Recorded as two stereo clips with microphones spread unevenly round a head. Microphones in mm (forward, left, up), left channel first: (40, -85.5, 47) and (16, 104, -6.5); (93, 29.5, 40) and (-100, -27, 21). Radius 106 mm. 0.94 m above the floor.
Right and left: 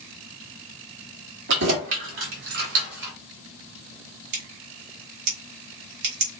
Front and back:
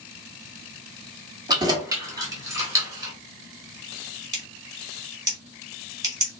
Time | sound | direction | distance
1.5 | keys jangling | 125° left | 1.4 m
4.3 | scissors | 125° left | 2.5 m